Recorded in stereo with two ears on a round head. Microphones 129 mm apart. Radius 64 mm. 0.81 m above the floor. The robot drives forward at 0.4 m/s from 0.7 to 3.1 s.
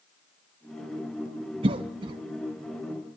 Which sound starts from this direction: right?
A cough, at 1.6 s.